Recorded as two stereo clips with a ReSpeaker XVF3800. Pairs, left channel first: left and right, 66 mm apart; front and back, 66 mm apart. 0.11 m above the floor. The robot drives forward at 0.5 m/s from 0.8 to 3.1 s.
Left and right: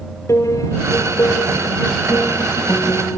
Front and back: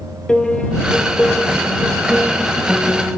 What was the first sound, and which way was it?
A piano, 80° left.